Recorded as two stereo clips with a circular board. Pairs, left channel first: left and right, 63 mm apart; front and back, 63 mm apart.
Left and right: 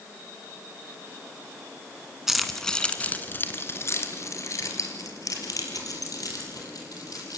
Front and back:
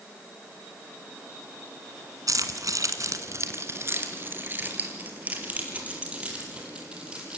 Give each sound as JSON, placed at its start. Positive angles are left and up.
{"t": 2.3, "sound": "keys jangling", "azimuth_deg": -175, "distance_m": 2.0}